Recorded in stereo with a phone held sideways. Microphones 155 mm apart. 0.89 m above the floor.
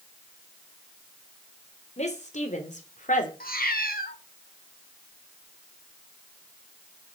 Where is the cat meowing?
85° left, 1.8 m.